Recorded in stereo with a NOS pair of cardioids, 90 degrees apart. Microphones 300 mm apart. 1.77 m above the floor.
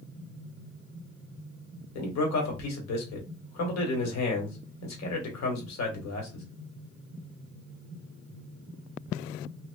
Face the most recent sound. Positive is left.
turn(degrees=65)